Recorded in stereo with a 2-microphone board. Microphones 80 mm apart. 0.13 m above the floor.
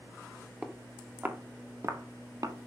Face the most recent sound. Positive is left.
turn(degrees=-50)  # may be behind; listen again after turning